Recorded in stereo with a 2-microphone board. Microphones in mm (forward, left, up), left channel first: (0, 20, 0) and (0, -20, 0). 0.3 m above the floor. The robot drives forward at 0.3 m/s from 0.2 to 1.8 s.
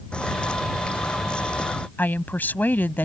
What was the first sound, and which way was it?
A bird, 20° left (ahead or behind).